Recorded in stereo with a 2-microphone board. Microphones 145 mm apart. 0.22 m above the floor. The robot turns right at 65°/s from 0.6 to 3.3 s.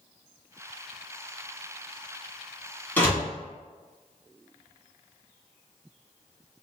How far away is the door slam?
About 1.3 m.